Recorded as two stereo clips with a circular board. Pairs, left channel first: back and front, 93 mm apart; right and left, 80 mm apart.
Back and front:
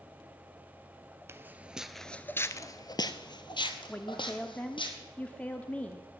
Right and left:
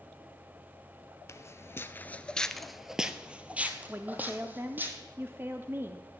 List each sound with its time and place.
1.3 s footsteps: 55° right, 0.7 m; by 4.9 s 155° left, 1.6 m
3.9 s a woman speaking: 120° left, 0.7 m